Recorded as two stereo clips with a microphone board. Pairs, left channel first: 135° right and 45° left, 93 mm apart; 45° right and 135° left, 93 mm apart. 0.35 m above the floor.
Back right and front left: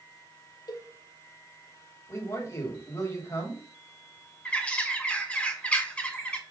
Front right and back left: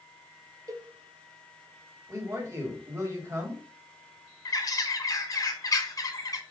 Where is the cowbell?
175° right, 0.5 m.